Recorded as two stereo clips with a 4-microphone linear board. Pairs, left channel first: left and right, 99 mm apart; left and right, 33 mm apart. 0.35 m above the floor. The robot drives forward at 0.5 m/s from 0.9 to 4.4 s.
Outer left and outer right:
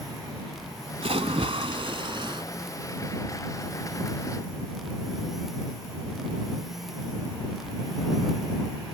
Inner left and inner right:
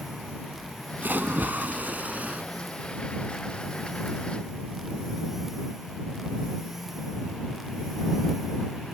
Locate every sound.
1.0 s a splash: 80° right; by 2.4 s 55° right (ahead or behind)